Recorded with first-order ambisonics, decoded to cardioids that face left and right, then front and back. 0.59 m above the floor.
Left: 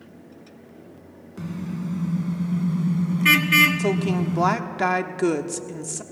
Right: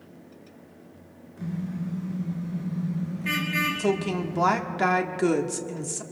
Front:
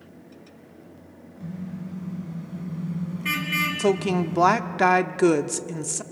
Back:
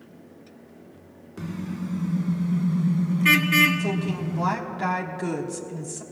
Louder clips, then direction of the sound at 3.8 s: Left 2 dB, front 7 dB; 10° left.